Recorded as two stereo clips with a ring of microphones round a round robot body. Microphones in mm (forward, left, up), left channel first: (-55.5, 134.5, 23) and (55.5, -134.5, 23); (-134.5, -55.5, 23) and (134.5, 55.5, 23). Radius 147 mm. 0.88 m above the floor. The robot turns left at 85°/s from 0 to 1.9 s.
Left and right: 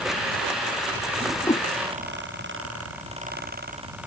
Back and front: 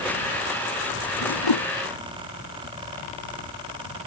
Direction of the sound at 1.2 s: 140° right.